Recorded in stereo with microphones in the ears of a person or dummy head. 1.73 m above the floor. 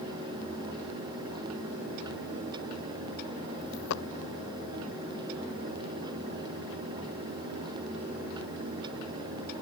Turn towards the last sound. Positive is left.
turn(degrees=75)  # may be behind; listen again after turning